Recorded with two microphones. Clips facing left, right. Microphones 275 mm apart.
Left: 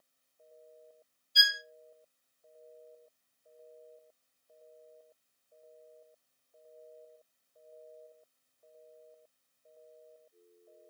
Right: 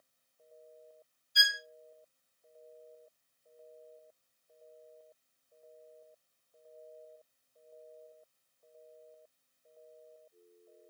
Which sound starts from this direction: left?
A violin, at 1.4 s.